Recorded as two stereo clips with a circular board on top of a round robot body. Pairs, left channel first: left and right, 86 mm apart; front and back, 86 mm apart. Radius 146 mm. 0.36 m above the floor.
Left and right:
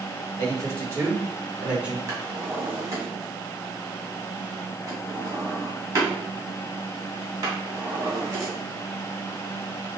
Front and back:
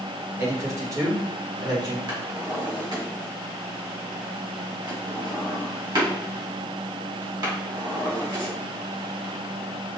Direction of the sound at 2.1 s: 140° right.